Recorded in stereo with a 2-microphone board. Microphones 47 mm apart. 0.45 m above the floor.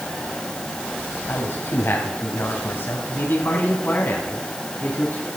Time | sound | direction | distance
1.3 | a man speaking | 60° left (ahead or behind) | 2.5 m